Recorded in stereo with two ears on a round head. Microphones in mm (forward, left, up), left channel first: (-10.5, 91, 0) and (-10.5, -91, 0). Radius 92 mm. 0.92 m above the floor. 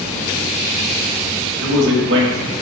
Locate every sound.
1.6 s a man speaking: 65° right (ahead or behind), 1.1 m